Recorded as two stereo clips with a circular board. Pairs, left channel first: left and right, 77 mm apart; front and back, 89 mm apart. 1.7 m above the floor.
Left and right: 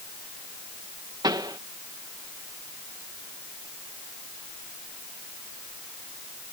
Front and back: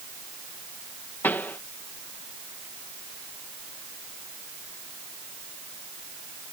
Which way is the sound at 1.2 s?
70° right.